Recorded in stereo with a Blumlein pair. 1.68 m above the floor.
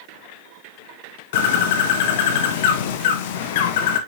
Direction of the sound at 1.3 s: 50° left.